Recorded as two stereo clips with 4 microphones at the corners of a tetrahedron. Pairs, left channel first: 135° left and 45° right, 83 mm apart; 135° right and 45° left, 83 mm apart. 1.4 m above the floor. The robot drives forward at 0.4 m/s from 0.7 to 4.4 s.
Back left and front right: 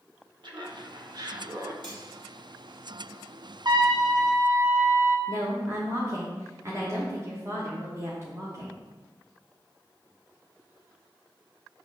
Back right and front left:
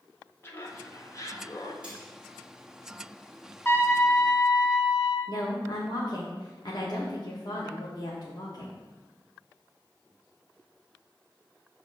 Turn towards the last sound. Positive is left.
turn(degrees=-100)